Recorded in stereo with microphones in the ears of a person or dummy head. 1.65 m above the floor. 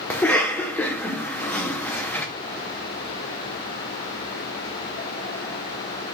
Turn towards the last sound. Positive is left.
turn(degrees=10)  # may be behind; listen again after turning